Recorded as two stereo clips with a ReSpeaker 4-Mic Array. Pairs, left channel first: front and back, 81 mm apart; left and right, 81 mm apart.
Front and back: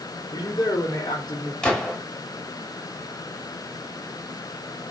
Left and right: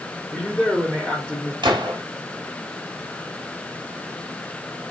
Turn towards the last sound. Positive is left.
turn(degrees=-80)